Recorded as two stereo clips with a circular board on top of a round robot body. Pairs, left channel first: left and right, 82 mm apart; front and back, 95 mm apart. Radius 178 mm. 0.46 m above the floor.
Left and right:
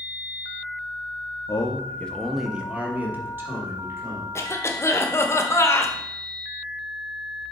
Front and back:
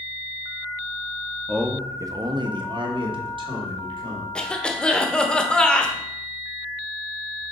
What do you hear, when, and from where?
1.5 s a man speaking: 90° left, 0.8 m; by 4.3 s 150° right, 2 m
4.3 s a cough: 75° left, 1.3 m